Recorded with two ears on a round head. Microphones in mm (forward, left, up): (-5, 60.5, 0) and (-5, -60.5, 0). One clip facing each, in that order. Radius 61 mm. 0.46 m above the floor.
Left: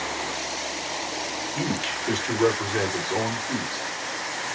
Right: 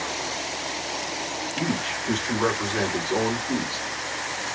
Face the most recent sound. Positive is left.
turn(degrees=-35)  # may be behind; listen again after turning